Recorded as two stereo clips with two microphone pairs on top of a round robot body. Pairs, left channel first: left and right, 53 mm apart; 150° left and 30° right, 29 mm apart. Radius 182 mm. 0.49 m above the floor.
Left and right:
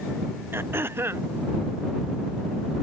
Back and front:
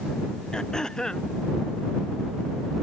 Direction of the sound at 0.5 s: 140° right.